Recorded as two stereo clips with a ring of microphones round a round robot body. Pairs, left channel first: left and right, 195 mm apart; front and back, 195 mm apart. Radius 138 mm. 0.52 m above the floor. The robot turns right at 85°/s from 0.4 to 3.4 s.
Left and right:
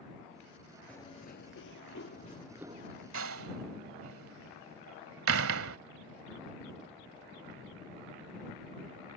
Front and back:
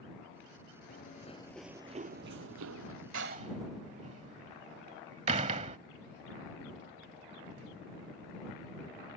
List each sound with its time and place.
0.9 s running footsteps: 5° left; by 3.0 s 135° right
3.1 s a door slam: 135° right; by 5.8 s 115° right